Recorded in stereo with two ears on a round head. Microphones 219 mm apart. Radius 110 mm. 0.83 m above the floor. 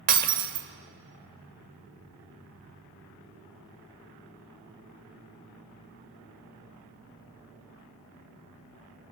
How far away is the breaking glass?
About 1.4 m.